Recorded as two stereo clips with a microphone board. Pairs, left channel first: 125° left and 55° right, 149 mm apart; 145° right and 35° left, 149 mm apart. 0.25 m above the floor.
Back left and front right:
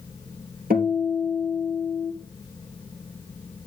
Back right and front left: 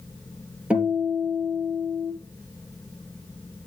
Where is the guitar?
50° right, 3.5 m.